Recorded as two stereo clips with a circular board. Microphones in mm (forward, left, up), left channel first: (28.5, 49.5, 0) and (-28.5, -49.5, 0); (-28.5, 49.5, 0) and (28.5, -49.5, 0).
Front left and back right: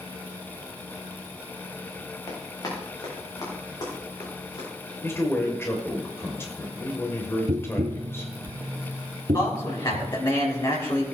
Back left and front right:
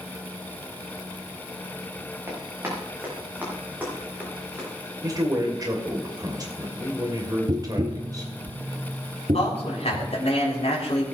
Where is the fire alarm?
I don't hear a fire alarm.